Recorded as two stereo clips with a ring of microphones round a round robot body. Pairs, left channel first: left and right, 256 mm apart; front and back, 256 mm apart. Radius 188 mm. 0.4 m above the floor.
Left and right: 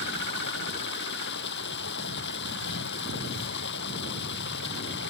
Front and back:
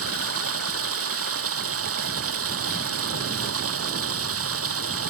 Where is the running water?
150° left.